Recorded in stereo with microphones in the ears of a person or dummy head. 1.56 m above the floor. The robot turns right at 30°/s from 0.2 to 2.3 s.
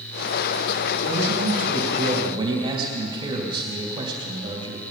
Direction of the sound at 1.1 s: 70° right.